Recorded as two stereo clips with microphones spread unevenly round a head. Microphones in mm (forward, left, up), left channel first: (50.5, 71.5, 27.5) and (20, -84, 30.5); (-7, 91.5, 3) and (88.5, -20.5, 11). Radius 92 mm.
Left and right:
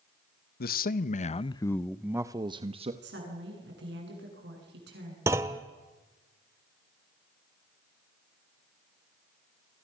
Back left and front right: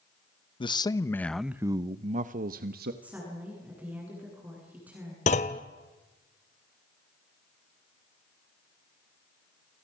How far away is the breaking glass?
No breaking glass in this recording.